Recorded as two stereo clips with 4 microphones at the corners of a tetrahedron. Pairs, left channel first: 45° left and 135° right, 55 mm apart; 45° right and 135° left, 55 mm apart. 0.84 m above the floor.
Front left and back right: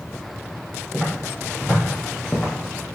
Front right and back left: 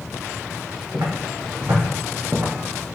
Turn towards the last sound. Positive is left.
turn(degrees=105)